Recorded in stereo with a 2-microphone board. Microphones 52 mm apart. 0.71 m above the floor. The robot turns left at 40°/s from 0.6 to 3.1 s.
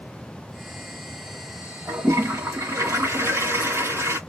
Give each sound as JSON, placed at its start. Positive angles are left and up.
{"t": 1.9, "sound": "a toilet flushing", "azimuth_deg": -60, "distance_m": 1.9}